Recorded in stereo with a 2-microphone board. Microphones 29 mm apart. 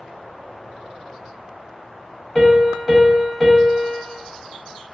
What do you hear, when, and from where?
2.4 s a piano: 10° left (ahead or behind), 0.9 m